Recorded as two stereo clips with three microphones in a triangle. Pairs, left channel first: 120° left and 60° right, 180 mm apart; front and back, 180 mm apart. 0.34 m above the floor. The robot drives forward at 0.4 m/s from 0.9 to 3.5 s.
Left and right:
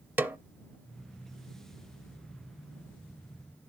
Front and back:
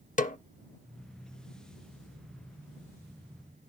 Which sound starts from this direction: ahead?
A snare drum, at 0.2 s.